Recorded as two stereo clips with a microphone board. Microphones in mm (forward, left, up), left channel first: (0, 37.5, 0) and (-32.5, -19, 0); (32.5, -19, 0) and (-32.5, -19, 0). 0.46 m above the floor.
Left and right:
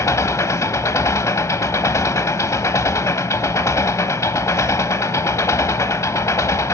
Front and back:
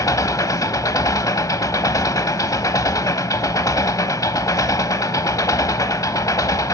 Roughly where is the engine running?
Ahead left.